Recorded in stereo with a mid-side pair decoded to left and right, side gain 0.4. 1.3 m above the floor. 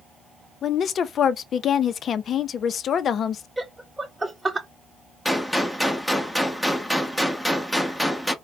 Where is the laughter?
15° right, 0.8 m.